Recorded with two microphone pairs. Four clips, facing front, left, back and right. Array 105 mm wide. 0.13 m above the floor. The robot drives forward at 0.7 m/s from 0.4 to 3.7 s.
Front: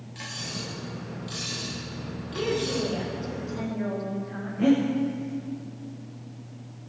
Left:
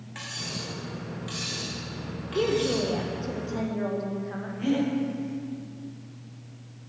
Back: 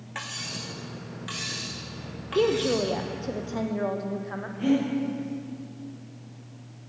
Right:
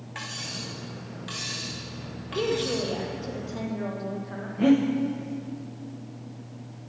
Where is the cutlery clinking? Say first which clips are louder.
Left 1 dB, even; 160° right, 6.5 m; by 2.9 s 165° right, 8.5 m.